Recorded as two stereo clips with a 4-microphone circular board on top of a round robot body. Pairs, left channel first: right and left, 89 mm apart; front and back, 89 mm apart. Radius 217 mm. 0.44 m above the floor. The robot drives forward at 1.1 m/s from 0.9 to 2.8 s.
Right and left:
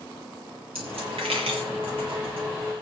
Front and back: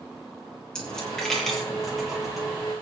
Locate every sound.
0.8 s a dropped coin: 80° left, 8.5 m; by 2.6 s 95° left, 8.5 m